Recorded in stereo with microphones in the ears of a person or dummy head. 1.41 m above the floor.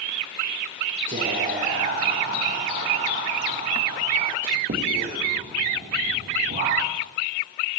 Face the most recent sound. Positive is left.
turn(degrees=-45)  # may be behind; listen again after turning